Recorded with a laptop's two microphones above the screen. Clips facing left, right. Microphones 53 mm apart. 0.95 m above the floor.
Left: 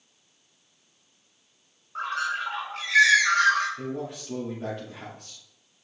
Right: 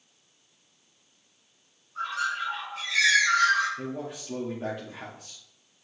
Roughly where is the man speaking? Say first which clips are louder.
Left 2 dB; centre.